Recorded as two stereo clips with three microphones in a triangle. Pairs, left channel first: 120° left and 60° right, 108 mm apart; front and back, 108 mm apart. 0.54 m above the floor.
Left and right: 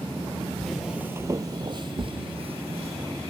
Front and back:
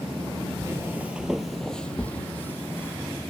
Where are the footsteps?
160° right; by 3.0 s 70° right.